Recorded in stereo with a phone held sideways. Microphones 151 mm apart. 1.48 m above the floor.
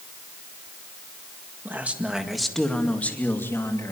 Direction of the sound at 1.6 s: 15° right (ahead or behind).